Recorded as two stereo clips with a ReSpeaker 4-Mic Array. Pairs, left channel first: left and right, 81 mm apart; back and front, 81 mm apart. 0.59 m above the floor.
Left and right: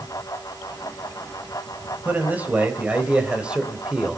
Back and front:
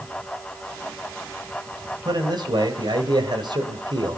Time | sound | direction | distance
2.0 | a man speaking | 25° right | 4 m